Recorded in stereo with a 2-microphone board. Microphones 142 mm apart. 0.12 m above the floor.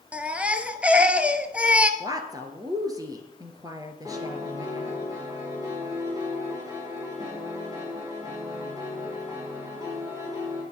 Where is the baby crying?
10° right (ahead or behind), 0.9 m.